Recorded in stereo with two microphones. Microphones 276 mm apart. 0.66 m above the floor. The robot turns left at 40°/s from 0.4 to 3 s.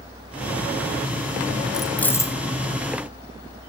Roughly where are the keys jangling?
Centre.